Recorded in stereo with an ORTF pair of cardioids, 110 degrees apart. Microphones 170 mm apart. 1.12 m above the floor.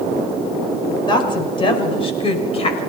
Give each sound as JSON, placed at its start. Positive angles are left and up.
{"t": 1.1, "sound": "a woman speaking", "azimuth_deg": 25, "distance_m": 5.5}